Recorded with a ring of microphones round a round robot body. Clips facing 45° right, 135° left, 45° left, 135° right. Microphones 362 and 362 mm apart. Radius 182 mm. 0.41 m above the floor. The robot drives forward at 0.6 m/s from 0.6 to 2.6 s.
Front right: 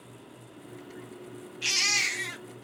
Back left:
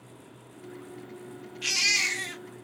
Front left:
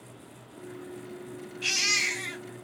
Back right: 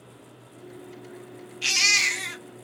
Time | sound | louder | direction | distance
1.6 | a baby crying | back left 1 dB, front left 1 dB | 150° right | 0.8 m